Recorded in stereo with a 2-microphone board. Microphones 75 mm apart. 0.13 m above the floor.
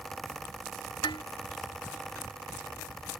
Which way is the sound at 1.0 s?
75° left (ahead or behind).